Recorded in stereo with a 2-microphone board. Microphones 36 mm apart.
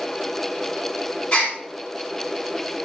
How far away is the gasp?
About 3.5 m.